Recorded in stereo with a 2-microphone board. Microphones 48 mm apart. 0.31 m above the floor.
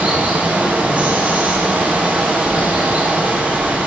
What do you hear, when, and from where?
0.0 s running water: 30° right (ahead or behind), 3 m